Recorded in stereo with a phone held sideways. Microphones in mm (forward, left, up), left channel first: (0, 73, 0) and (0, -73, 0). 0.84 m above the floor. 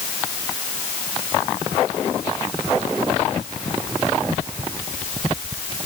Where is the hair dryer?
No hair dryer in this recording.